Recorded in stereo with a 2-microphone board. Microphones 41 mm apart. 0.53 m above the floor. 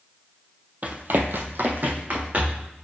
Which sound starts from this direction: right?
Running footsteps, at 0.8 s.